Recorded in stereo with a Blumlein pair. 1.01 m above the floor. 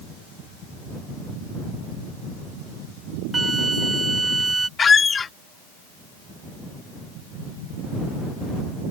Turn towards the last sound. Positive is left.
turn(degrees=15)